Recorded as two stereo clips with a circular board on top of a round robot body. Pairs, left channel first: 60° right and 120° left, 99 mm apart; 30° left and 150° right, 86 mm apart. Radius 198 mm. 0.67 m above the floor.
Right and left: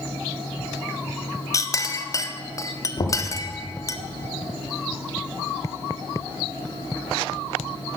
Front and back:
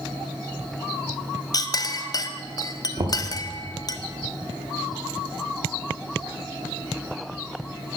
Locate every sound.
1.5 s a clink: 5° right, 0.7 m
3.0 s knocking: 110° right, 1.1 m